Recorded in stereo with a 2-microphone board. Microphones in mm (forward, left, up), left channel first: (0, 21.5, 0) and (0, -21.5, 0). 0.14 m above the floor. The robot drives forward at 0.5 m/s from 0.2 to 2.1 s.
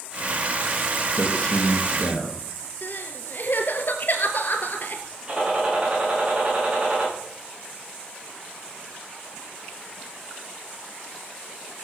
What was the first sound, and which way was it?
A man speaking, 25° left (ahead or behind).